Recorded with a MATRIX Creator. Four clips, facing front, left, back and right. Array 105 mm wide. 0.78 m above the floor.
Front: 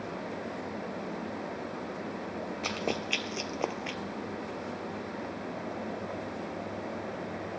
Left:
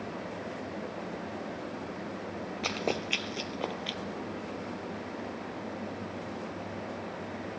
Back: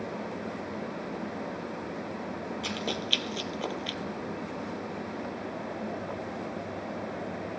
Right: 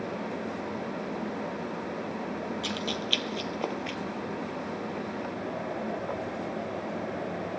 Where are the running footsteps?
65° left, 1.0 m; by 4.0 s 45° right, 0.8 m.